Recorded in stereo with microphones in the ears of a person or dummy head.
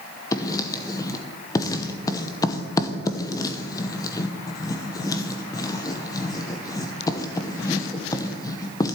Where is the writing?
20° left (ahead or behind), 1.0 m.